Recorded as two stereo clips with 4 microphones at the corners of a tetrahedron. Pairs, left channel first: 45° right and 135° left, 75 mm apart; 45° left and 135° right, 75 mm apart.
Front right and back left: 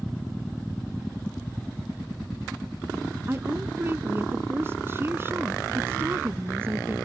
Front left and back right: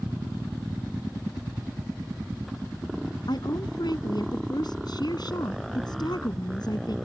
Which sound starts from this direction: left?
A woman speaking, at 3.3 s.